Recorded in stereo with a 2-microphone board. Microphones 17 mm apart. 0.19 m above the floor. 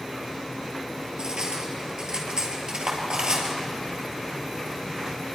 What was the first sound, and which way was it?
Cutlery clinking, 45° right (ahead or behind).